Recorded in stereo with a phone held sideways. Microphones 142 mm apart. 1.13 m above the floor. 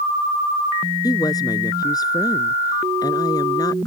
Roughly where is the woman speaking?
Left.